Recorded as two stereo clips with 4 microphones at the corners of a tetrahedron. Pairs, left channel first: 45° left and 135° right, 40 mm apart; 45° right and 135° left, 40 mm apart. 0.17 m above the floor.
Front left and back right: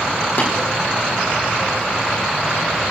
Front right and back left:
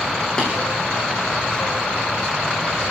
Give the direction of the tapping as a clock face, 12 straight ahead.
11 o'clock.